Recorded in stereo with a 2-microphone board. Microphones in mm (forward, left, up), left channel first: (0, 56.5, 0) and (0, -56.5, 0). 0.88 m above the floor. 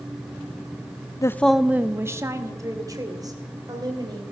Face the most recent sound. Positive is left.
turn(degrees=-35)  # may be behind; listen again after turning